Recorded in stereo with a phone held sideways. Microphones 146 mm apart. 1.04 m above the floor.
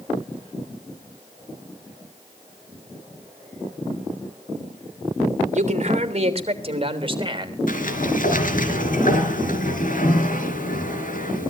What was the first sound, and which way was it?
A man speaking, 55° right (ahead or behind).